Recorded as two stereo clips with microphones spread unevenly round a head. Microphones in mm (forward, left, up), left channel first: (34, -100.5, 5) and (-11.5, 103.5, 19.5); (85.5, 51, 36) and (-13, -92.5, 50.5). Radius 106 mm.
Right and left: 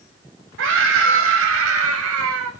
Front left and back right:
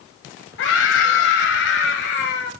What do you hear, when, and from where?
0.6 s a scream: 75° left, 6.5 m; by 2.5 s 85° left, 6.5 m